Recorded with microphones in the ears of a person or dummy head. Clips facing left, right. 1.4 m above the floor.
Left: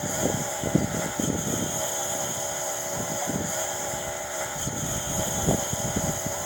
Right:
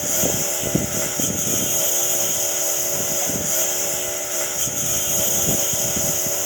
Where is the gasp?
I don't hear a gasp.